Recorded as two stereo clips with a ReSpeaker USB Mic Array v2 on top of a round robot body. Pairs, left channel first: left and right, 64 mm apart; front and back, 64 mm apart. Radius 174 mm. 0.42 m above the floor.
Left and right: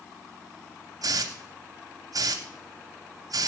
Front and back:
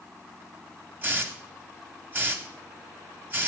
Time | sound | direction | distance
1.0 | a hiss | 120° right | 0.6 m